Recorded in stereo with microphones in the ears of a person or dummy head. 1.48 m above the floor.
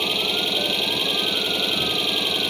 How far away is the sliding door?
I don't hear a sliding door.